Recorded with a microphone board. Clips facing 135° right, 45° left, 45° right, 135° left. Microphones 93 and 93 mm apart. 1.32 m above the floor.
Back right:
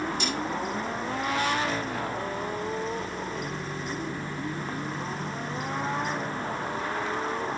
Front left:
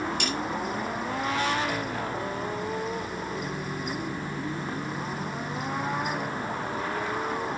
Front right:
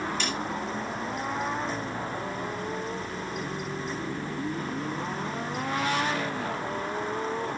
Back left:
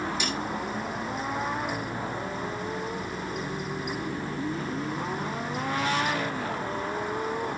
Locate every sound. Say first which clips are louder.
0.2 s a snare drum: even, even; 55° left, 7 m